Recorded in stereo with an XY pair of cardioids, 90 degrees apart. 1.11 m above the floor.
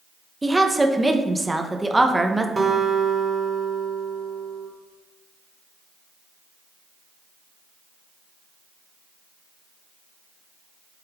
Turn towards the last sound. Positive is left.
turn(degrees=-30)